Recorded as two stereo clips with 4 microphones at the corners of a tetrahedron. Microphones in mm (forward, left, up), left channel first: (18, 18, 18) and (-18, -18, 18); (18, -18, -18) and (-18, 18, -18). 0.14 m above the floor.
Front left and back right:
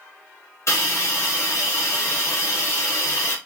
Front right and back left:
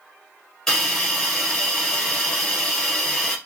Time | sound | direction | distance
0.7 | a hiss | 35° left | 2 m